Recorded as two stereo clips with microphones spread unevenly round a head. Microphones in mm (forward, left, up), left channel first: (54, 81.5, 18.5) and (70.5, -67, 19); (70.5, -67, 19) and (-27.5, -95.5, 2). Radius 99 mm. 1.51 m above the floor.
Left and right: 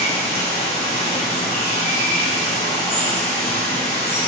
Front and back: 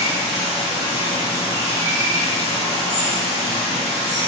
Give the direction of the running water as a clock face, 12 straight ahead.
7 o'clock.